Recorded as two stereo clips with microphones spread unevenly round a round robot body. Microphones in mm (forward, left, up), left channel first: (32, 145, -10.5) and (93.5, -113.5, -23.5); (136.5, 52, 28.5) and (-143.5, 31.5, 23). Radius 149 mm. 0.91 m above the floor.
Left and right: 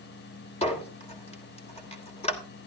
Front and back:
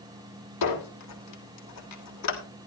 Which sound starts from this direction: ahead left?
A squeak, at 0.6 s.